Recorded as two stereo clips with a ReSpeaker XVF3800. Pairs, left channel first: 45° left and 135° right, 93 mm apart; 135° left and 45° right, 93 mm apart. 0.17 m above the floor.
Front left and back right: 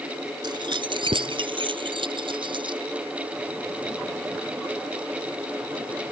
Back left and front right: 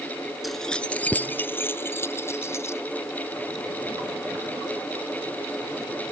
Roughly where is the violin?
I don't hear a violin.